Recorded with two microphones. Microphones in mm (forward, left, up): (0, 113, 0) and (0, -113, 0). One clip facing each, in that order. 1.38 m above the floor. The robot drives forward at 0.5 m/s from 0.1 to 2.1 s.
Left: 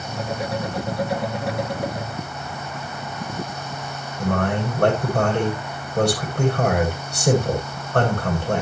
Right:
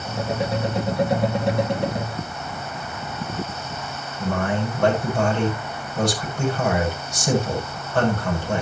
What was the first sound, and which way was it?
A man speaking, 60° left (ahead or behind).